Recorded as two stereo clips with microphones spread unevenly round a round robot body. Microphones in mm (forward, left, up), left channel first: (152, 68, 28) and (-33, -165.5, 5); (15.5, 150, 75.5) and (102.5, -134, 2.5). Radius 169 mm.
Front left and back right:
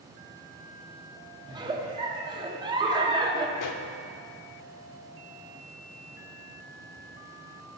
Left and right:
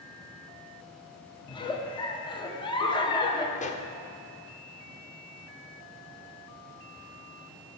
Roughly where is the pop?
Ahead left.